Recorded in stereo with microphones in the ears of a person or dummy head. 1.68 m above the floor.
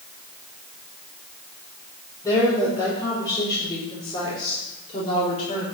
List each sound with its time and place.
2.2 s a woman speaking: 15° left (ahead or behind), 5 m; by 5.7 s 35° left (ahead or behind), 3.5 m